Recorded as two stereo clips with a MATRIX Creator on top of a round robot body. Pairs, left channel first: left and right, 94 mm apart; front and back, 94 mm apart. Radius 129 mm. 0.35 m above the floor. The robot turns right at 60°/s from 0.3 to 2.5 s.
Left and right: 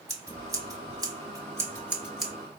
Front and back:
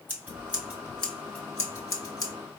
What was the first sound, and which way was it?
Scissors, 120° right.